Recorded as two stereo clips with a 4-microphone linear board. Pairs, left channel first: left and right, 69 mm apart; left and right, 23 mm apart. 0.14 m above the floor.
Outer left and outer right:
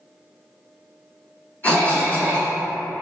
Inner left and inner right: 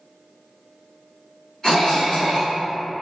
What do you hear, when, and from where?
1.6 s a cough: 30° left (ahead or behind), 1.8 m